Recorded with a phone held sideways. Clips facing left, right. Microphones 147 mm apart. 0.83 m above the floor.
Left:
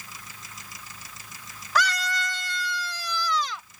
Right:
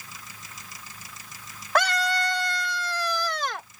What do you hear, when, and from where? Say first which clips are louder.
1.8 s a scream: right 3 dB; 55° right (ahead or behind); by 3.7 s 65° right (ahead or behind)